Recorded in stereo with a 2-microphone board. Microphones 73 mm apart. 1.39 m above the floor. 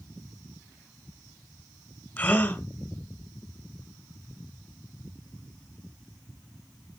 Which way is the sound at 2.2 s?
25° left (ahead or behind).